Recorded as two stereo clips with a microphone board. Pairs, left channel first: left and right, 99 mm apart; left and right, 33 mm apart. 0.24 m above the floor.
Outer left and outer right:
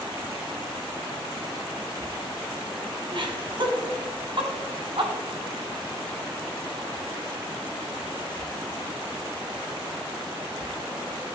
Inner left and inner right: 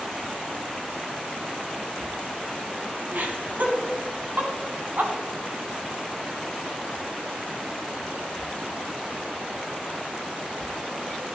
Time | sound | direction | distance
3.1 | laughter | 55° right (ahead or behind) | 1.6 m